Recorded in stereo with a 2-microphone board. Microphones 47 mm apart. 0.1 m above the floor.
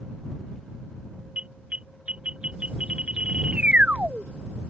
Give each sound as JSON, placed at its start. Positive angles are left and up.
{"t": 1.4, "sound": "an alarm", "side_deg": -30}